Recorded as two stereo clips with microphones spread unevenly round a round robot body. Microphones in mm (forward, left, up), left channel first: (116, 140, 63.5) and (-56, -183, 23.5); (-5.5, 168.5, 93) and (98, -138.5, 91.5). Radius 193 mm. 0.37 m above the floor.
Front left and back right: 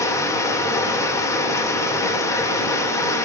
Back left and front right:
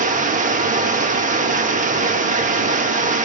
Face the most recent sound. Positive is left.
turn(degrees=-25)